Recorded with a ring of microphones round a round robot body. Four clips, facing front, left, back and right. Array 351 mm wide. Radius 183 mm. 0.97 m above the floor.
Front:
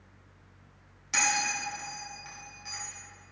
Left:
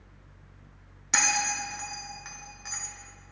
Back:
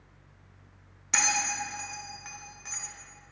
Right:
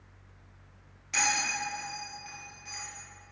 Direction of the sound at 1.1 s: 115° left.